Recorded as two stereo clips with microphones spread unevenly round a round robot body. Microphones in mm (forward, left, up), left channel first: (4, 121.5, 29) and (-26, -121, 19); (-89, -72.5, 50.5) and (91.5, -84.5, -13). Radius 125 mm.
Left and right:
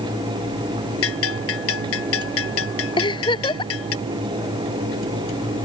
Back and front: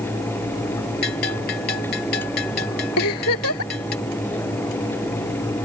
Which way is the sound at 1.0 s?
120° left.